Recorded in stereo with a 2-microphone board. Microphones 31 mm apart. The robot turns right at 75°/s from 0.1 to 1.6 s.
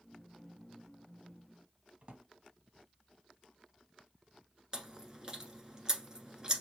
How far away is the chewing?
About 1.1 m.